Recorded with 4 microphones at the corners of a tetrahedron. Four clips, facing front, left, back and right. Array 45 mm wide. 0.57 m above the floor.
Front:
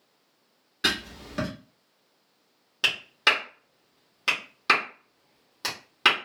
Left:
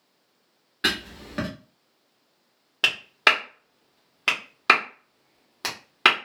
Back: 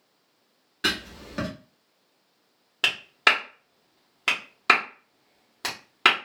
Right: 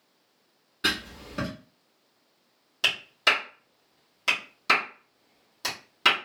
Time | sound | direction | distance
0.8 | writing | 100° left | 1.5 m
2.8 | a clap | 115° left | 1.4 m